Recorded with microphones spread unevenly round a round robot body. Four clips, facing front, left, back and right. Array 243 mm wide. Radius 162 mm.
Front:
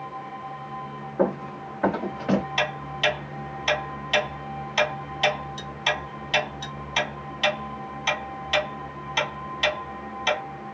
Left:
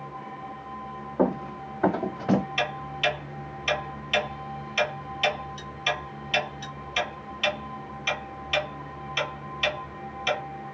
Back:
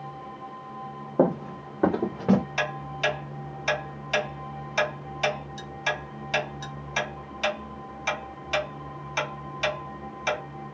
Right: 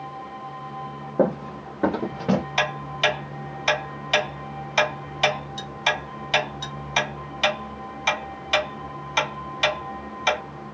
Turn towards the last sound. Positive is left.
turn(degrees=-70)